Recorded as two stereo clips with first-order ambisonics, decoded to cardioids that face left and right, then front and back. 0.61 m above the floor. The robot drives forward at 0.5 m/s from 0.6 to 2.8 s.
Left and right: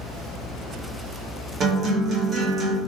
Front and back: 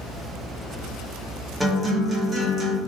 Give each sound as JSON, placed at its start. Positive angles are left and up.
{"t": 1.6, "sound": "a guitar", "azimuth_deg": -90, "distance_m": 0.8}